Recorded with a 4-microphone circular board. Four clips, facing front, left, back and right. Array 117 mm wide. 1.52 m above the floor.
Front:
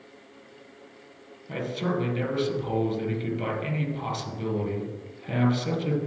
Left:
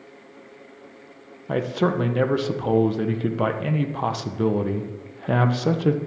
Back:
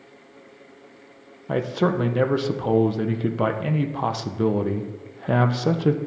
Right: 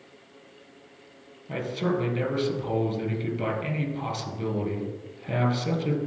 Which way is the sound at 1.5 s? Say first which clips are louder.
Left 5 dB, back 7 dB; 140° left.